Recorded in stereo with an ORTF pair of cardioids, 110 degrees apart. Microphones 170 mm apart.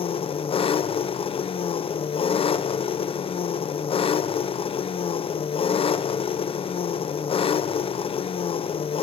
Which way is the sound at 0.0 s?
35° left.